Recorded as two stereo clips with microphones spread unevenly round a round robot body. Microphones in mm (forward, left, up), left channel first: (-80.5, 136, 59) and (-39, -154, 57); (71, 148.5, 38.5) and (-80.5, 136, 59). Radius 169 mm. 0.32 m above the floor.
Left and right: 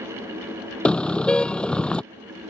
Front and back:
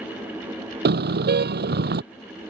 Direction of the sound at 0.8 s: 175° right.